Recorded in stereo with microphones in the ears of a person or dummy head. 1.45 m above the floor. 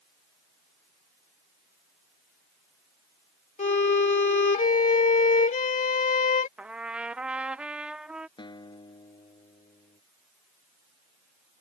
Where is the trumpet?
10° right (ahead or behind).